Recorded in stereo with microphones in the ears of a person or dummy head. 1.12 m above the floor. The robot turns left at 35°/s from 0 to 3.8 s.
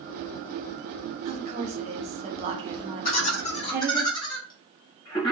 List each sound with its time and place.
1.2 s a woman speaking: 65° right, 0.6 m; by 4.0 s 155° right, 0.6 m
3.0 s laughter: 55° left (ahead or behind), 1.4 m; by 5.3 s 30° left (ahead or behind), 1.4 m